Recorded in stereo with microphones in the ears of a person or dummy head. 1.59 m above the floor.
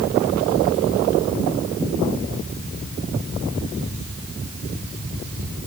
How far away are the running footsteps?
No running footsteps in this recording.